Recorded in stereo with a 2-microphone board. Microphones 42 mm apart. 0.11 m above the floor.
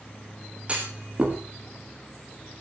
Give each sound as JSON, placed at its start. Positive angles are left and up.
{"t": 0.7, "sound": "a clunk", "side_deg": -25, "distance_m": 4.5}